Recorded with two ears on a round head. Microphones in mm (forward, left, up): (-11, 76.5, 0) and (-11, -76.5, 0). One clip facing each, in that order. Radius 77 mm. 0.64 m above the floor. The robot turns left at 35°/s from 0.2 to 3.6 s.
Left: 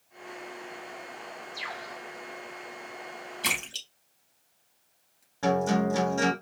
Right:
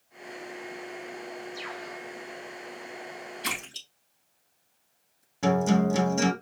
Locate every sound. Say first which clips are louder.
1.5 s a bird: right 2 dB; 15° left (ahead or behind), 3 m; by 2.0 s 30° left (ahead or behind), 3 m
3.4 s a splash: left 1 dB; 80° left, 4 m; by 5.2 s 85° left, 4 m
5.4 s a guitar: right 2 dB; 20° right (ahead or behind), 1.4 m